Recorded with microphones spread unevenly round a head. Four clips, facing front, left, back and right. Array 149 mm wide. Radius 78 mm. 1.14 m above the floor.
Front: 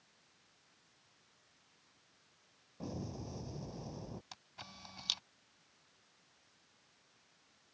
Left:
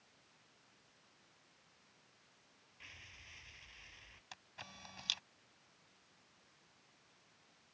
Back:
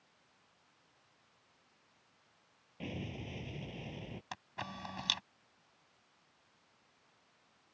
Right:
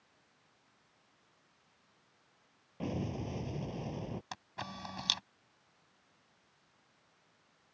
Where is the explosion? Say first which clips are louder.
Right 26 dB, even; 90° right.